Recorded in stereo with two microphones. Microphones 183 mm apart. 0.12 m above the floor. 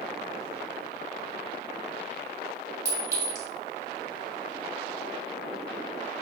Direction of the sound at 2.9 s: 20° right (ahead or behind).